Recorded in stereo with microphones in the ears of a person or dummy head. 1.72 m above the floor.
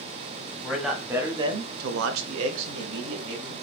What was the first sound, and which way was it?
A man speaking, centre (ahead or behind).